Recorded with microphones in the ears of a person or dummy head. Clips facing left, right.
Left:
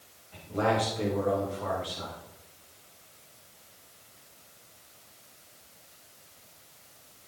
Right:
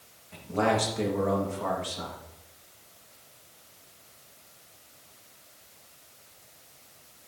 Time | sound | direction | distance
0.3 | a man speaking | 55° right (ahead or behind) | 1.9 m